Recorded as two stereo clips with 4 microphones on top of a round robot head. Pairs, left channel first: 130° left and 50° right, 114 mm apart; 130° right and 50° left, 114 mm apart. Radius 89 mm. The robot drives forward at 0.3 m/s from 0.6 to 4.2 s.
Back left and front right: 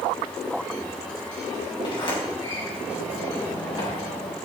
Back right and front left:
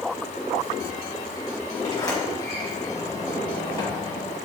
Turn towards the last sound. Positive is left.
turn(degrees=170)